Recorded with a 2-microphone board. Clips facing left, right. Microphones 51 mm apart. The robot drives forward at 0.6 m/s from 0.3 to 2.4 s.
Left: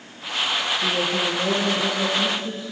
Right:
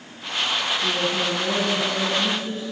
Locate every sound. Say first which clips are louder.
0.8 s a woman speaking: left 1 dB; 50° left (ahead or behind), 2.0 m; by 2.6 s 40° left (ahead or behind), 2 m